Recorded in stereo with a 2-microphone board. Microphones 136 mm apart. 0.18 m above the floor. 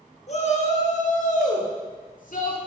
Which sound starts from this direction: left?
A shout, at 0.3 s.